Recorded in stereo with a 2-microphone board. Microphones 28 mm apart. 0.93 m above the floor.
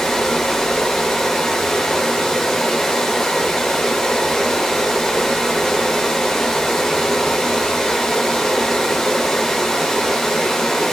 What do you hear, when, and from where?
0.0 s running water: 5° left (ahead or behind), 1.1 m